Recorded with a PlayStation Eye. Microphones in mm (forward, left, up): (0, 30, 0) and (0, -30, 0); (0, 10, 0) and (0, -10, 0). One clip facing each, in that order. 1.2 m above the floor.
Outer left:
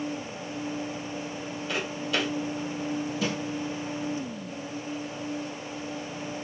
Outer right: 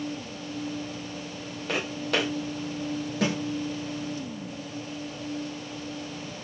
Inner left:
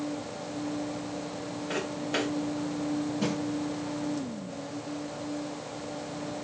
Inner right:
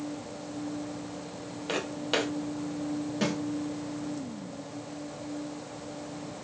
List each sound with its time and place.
1.7 s footsteps: 60° right (ahead or behind), 2.5 m
3.2 s a snare drum: 70° right (ahead or behind), 1.8 m